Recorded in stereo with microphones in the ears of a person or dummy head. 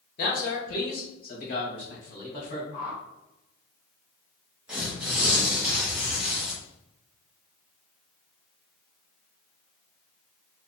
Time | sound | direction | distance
0.2 | a man speaking | 55° left (ahead or behind) | 1.3 m
2.7 | a whoosh | 10° left (ahead or behind) | 2 m
4.7 | tearing paper | 5° right (ahead or behind) | 1.0 m